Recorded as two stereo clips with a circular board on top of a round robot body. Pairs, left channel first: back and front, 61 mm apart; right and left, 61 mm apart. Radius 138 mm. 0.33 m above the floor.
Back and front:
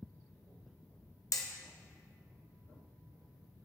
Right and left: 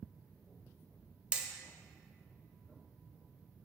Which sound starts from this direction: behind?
Hammering, at 1.3 s.